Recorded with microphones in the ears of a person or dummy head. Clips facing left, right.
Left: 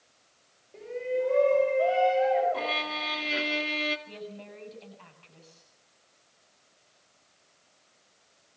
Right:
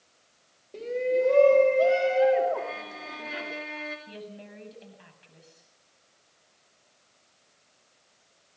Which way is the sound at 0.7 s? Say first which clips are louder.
Right 5 dB; 50° right (ahead or behind).